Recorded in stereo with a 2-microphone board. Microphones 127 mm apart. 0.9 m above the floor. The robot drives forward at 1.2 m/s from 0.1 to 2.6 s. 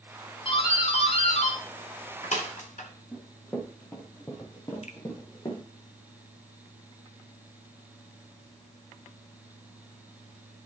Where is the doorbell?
40° left (ahead or behind), 3 m; by 2.9 s 65° left (ahead or behind), 2 m.